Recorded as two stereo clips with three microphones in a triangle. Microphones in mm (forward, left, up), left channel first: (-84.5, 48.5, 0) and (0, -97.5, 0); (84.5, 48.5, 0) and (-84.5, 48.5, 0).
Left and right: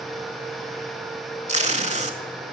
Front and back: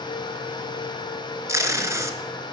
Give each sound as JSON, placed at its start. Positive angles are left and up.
{"t": 1.5, "sound": "tape being pulled", "azimuth_deg": -110, "distance_m": 0.6}